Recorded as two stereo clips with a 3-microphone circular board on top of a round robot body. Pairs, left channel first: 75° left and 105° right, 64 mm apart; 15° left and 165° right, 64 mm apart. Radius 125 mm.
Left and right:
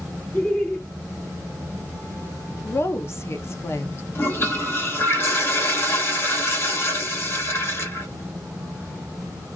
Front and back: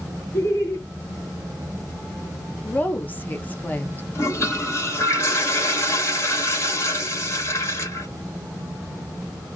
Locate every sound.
0.3 s laughter: 10° left, 1.3 m
2.6 s a woman speaking: 60° left, 0.8 m
4.2 s a toilet flushing: 40° left, 1.6 m